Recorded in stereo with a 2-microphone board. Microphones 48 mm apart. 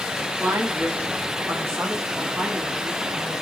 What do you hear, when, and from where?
0.4 s a woman speaking: 55° right (ahead or behind), 2.5 m; by 3.3 s 45° right (ahead or behind), 4.5 m